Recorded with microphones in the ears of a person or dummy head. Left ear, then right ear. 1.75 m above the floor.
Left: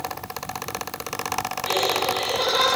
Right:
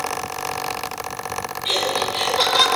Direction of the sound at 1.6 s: 50° right (ahead or behind).